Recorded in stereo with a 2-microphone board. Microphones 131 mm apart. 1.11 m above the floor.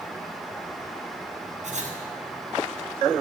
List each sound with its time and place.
1.6 s writing: 65° right (ahead or behind), 5 m